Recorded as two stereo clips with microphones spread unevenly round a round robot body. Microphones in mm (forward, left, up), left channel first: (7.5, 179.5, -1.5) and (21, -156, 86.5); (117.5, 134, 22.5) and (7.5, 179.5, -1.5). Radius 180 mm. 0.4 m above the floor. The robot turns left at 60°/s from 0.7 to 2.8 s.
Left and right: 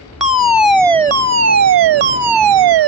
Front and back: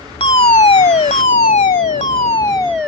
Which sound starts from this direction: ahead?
A fire alarm, at 0.2 s.